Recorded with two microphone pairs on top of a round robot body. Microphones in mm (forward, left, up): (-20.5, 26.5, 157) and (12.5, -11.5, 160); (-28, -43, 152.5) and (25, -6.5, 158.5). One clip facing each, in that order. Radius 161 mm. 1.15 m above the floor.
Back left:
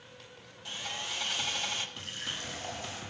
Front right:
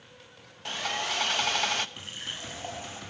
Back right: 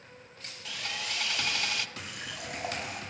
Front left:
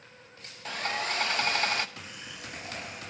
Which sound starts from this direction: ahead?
Sawing, at 0.7 s.